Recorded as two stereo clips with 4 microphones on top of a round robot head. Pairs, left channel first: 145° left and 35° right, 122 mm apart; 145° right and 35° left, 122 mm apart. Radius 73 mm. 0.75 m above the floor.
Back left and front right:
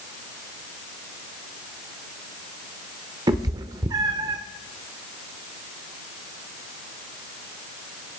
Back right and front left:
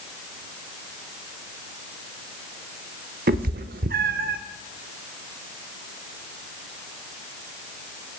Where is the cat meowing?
25° left, 0.8 m.